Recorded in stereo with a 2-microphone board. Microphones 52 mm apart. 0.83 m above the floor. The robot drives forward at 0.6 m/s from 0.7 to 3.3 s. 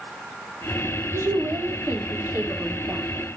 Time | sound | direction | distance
1.1 | a woman speaking | 65° right (ahead or behind) | 1.8 m